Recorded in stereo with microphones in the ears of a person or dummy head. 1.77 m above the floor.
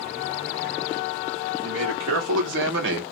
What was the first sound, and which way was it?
A man speaking, 75° right (ahead or behind).